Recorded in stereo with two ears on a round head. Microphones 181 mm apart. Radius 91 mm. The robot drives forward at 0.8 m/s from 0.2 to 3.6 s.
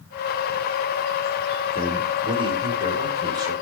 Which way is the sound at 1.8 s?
30° right (ahead or behind).